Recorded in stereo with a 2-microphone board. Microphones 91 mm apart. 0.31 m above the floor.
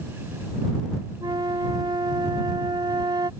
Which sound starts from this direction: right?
A flute, at 1.2 s.